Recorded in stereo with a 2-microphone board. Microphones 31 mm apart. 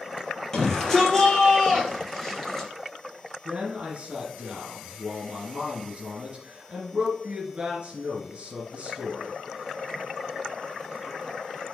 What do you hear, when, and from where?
0.5 s a shout: 10° left (ahead or behind), 4 m; by 2.7 s 5° left (ahead or behind), 2.5 m
3.5 s a man speaking: 40° right (ahead or behind), 2.5 m